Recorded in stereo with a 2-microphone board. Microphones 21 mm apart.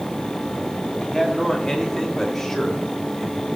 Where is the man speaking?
40° left (ahead or behind), 1.9 m; by 3.5 s 5° left (ahead or behind), 2.5 m.